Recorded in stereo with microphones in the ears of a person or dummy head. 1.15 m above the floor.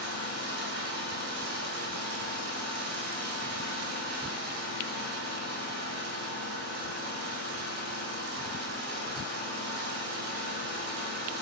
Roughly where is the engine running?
Right.